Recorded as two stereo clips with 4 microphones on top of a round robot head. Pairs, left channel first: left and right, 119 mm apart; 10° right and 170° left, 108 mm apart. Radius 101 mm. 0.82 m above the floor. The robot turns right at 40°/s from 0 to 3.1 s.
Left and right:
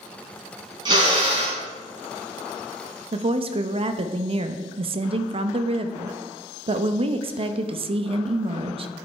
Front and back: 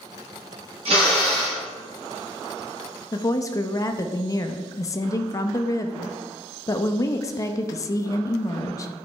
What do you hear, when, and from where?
0.8 s a drill: 145° right, 4.5 m; by 1.6 s 115° right, 4.5 m
3.1 s a woman speaking: 60° right, 0.7 m